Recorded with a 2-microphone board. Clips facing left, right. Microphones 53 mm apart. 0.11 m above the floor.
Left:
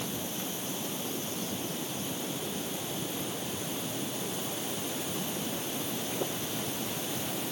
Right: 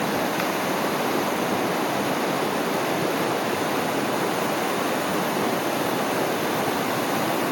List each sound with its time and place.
0.0 s running water: 80° right